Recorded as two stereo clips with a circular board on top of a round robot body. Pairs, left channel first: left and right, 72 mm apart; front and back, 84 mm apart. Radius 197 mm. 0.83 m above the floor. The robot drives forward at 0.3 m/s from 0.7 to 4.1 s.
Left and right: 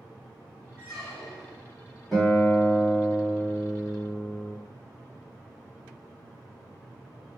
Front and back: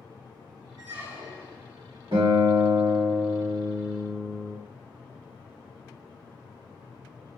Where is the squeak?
Straight behind, 1.5 m.